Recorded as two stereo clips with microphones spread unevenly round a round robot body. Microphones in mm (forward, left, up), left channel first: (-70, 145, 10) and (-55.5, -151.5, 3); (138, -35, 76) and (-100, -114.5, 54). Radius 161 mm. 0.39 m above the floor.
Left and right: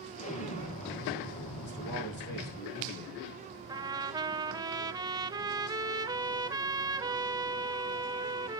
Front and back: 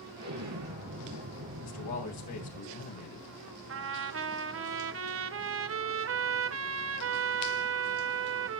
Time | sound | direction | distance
0.2 | an explosion | 160° left | 3.5 m
1.6 | a man speaking | 35° left | 4 m
3.7 | a trumpet | 160° right | 0.8 m